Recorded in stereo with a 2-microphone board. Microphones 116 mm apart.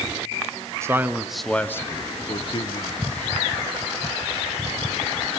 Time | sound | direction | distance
0.8 | a man speaking | 25° right (ahead or behind) | 1.3 m